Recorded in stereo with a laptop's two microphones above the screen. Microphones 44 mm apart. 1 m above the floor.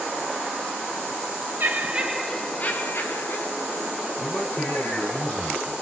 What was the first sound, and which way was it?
Laughter, 45° right (ahead or behind).